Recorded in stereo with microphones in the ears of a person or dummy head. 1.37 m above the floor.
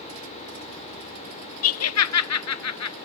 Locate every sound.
1.6 s laughter: 65° left (ahead or behind), 0.6 m; by 3.0 s 80° left, 1.3 m